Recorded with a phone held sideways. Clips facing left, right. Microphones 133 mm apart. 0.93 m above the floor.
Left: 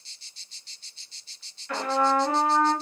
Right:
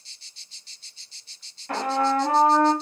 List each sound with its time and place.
1.7 s a trumpet: 40° right (ahead or behind), 1.4 m